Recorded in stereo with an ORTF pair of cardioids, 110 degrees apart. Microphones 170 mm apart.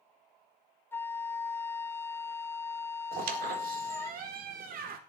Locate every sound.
0.9 s a flute: 15° left, 0.6 m
3.1 s a squeak: 60° right, 1.7 m